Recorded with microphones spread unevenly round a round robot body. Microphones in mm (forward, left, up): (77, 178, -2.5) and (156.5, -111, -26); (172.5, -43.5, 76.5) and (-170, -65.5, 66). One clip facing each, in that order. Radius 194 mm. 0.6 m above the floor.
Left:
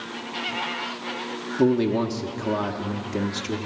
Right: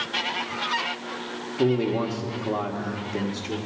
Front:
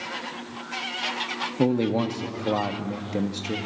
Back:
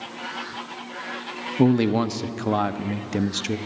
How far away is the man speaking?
About 0.6 m.